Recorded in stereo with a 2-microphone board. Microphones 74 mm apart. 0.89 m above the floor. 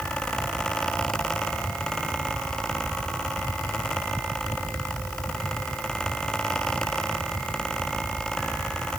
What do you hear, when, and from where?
Only background noise.